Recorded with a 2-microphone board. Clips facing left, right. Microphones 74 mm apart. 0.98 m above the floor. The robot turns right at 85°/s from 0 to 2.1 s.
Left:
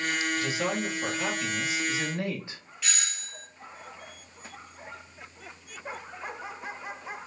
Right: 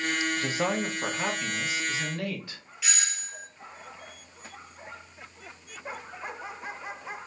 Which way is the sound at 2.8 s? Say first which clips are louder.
Right 2 dB; 5° right (ahead or behind).